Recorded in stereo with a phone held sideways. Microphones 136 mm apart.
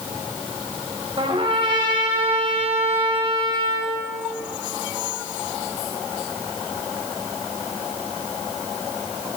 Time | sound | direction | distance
1.2 | a trumpet | 40° right (ahead or behind) | 6.5 m